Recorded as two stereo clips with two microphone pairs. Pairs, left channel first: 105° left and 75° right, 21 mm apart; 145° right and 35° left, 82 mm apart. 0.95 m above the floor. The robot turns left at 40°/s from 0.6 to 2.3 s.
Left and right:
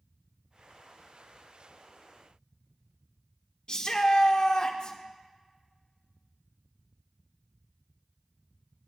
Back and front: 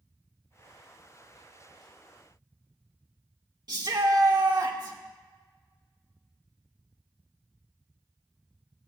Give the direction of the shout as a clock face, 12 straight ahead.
10 o'clock.